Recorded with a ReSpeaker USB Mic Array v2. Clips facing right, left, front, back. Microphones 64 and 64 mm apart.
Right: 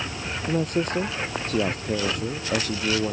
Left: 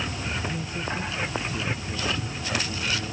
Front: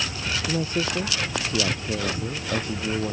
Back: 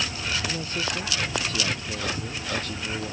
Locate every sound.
0.5 s a man speaking: 70° right